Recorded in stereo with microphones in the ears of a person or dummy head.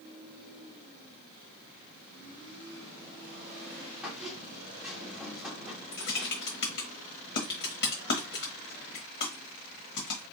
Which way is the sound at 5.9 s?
50° left (ahead or behind).